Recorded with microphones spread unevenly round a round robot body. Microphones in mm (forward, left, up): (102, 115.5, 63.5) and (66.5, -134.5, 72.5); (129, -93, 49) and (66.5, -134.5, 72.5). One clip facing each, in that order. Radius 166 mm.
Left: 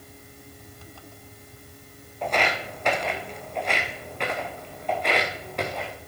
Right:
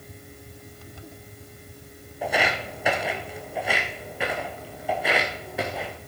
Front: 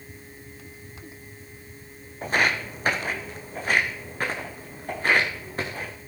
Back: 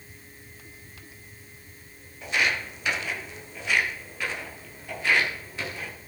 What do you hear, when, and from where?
2.2 s footsteps: 15° right, 1.8 m